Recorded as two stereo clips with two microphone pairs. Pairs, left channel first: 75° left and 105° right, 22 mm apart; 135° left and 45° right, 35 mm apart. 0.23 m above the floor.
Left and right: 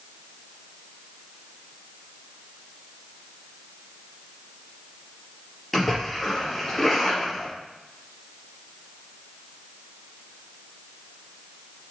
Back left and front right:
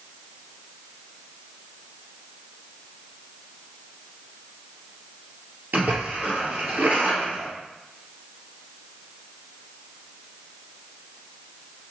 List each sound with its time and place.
5.7 s a splash: 10° right, 3.5 m